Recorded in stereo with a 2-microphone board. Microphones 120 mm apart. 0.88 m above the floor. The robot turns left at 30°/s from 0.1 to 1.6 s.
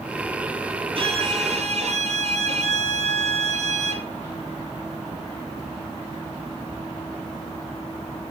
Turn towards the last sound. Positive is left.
turn(degrees=-70)  # may be behind; listen again after turning